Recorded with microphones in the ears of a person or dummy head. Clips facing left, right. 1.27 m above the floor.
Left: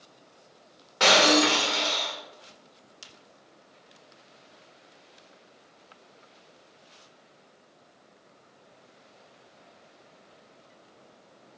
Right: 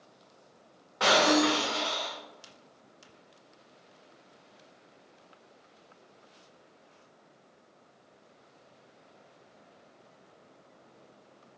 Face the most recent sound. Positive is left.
turn(degrees=35)  # may be behind; listen again after turning